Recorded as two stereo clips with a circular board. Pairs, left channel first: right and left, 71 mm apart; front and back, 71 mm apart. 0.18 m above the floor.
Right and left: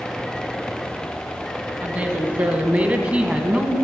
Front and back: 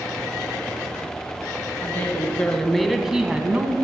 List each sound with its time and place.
1.8 s a woman speaking: 35° left, 1.7 m; by 3.8 s 150° left, 1.5 m